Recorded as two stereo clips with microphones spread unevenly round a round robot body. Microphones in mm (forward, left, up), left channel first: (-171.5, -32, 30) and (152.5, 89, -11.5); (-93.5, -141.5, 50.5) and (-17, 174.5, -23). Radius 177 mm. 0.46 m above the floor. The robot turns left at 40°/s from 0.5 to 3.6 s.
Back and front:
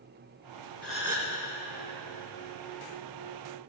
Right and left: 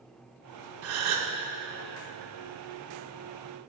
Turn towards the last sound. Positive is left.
turn(degrees=0)